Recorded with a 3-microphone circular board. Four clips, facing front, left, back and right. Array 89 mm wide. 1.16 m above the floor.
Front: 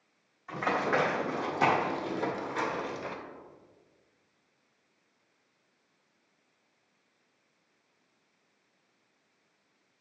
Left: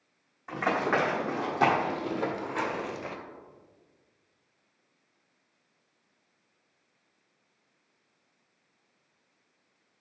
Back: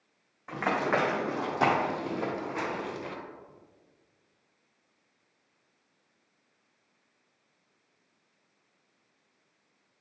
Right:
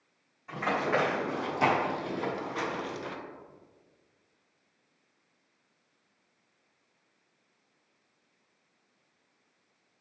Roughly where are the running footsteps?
Behind left.